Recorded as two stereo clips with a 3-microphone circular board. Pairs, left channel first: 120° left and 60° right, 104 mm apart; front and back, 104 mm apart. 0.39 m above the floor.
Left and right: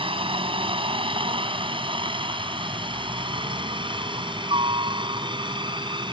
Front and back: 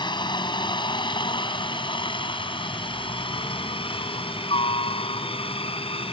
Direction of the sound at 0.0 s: 35° right.